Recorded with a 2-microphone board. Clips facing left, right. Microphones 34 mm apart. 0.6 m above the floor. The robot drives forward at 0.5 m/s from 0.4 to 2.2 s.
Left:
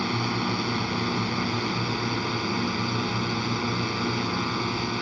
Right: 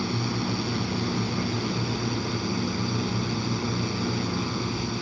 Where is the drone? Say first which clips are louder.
Left 2 dB; 30° left (ahead or behind).